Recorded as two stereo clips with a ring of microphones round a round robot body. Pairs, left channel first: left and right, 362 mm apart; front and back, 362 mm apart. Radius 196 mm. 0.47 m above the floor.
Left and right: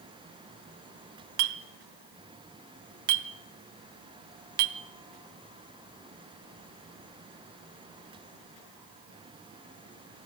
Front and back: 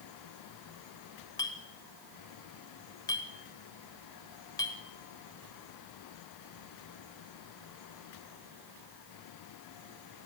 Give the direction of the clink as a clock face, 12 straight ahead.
3 o'clock.